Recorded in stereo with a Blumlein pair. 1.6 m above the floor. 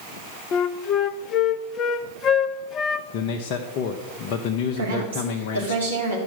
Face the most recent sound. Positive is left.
turn(degrees=-70)